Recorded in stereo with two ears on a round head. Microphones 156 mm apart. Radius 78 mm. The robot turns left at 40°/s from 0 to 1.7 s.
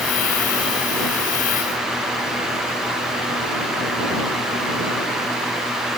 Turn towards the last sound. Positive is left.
No sound to turn to.